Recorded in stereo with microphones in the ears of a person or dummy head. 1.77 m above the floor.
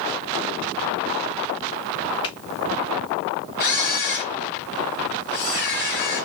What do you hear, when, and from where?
2.2 s a finger snap: 30° left (ahead or behind), 0.5 m
3.6 s a camera shutter: 40° left (ahead or behind), 0.7 m